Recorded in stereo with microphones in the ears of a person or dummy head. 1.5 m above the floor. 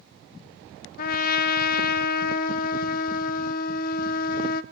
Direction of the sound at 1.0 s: 50° left (ahead or behind).